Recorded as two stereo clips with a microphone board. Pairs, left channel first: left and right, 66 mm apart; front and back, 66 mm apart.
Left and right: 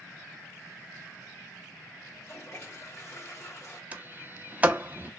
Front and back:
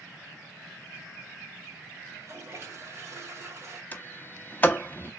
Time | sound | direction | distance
2.1 | a toilet flushing | 135° left | 2 m
3.9 | a sliding door | 45° right | 0.6 m